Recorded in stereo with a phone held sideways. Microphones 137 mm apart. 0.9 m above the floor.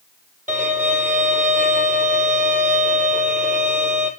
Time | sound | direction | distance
0.5 | a violin | 70° right (ahead or behind) | 3.5 m